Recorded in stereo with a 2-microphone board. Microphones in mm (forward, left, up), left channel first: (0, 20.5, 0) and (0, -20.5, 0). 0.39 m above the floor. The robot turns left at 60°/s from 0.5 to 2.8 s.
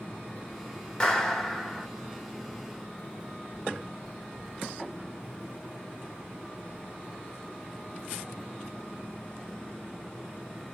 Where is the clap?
20° left (ahead or behind), 0.8 m; by 1.9 s 5° right (ahead or behind), 0.8 m.